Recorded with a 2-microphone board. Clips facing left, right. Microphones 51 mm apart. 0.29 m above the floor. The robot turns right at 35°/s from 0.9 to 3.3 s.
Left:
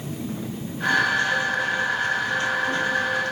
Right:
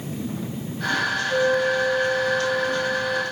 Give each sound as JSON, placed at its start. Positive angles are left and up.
{"t": 1.3, "sound": "a flute", "azimuth_deg": -30, "distance_m": 7.0}